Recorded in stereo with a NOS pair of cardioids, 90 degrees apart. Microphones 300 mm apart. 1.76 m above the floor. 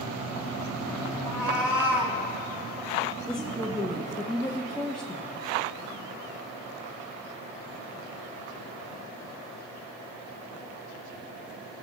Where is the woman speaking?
Straight ahead, 0.8 m.